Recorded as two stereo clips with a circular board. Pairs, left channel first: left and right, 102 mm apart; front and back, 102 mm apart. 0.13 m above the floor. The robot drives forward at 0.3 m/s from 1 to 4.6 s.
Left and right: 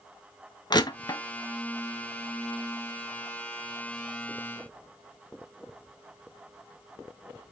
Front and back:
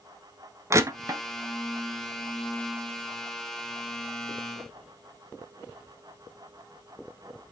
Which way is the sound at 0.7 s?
125° left.